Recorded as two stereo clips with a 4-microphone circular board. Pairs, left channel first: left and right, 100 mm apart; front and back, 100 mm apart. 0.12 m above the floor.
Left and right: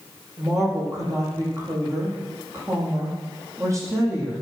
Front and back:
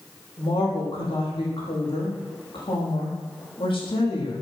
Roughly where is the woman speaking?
Ahead right.